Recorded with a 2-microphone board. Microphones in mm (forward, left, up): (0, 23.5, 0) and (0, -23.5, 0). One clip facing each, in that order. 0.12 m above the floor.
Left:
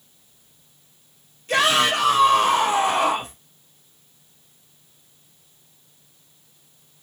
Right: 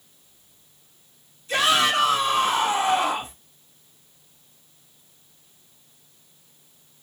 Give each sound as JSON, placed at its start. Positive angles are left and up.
{"t": 1.5, "sound": "a shout", "side_deg": 60, "distance_m": 4.5}